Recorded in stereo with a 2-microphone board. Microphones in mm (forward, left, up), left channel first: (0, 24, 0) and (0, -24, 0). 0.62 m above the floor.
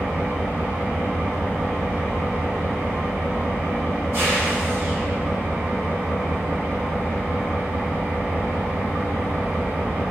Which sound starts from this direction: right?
An engine running, at 0.0 s.